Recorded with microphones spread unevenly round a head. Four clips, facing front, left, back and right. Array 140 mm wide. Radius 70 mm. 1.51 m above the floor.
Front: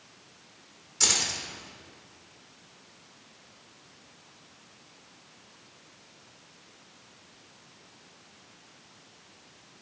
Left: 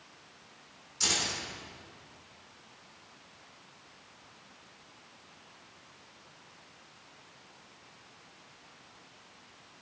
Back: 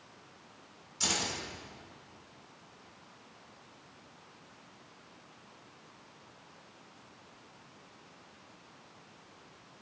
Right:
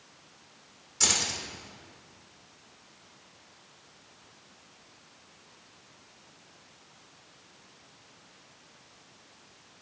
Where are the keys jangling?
30° right, 4 m.